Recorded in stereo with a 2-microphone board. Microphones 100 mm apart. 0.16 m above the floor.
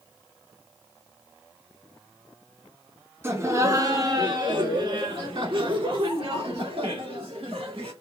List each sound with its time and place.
3.2 s laughter: 25° right (ahead or behind), 1.6 m; by 7.9 s 65° right (ahead or behind), 4 m